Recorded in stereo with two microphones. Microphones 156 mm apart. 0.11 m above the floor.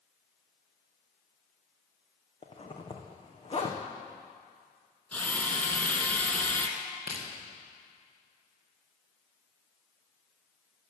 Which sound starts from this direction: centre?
A drill, at 5.1 s.